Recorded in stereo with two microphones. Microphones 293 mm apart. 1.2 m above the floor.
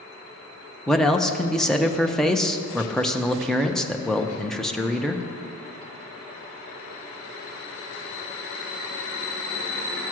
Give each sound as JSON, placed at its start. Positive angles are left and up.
{"t": 0.9, "sound": "a man speaking", "side_deg": 0, "distance_m": 0.7}